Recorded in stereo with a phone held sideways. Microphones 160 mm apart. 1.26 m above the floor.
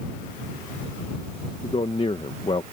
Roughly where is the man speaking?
Left.